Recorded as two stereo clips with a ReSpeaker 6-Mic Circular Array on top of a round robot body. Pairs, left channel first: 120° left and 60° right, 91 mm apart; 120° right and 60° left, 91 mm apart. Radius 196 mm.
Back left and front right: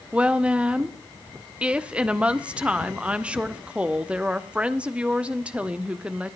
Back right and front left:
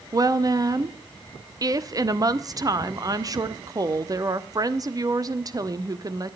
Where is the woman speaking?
15° left, 1.5 m.